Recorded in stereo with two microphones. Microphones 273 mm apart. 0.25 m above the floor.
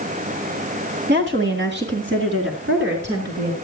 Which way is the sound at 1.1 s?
40° right (ahead or behind).